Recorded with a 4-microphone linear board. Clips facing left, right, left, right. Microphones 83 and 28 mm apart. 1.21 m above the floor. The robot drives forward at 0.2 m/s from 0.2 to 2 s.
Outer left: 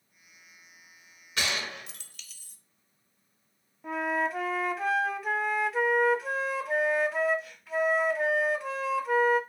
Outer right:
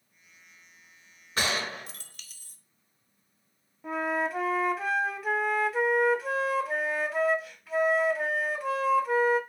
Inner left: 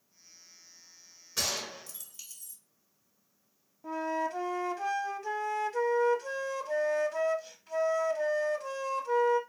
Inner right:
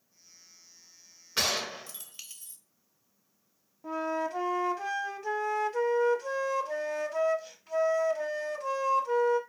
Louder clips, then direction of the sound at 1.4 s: Outer right 3 dB, inner right 4 dB; 40° right (ahead or behind).